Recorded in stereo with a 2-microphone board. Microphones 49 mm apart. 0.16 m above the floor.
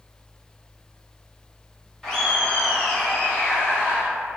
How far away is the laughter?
About 1.0 m.